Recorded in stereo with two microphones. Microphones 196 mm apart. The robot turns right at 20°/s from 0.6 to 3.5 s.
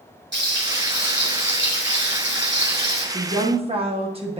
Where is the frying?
110° right, 4 m; by 3.0 s 60° right, 4 m.